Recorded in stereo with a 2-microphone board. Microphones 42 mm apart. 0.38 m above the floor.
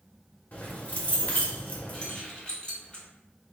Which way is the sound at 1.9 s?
25° left (ahead or behind).